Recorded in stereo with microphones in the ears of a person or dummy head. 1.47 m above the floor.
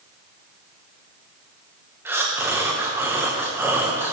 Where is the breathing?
10° right (ahead or behind), 0.8 m.